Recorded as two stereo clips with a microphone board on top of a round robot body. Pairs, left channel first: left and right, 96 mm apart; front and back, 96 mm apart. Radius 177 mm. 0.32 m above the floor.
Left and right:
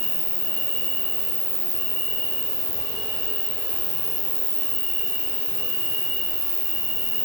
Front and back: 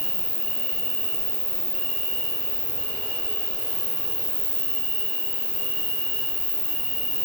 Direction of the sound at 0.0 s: 105° left.